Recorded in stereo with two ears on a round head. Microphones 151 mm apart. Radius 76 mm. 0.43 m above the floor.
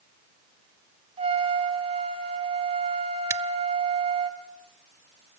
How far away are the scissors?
About 0.7 m.